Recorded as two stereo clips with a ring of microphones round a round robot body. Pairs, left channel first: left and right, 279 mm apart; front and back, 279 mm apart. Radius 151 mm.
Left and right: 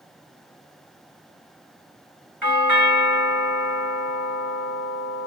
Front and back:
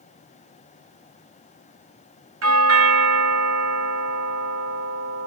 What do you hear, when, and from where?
2.4 s a doorbell: 170° right, 1.6 m